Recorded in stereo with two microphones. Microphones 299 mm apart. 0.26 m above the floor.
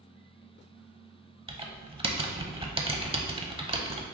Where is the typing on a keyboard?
20° right (ahead or behind), 0.6 m.